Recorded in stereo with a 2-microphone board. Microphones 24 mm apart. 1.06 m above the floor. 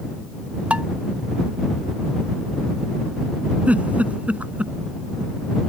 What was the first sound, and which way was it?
Dishes clattering, 70° right (ahead or behind).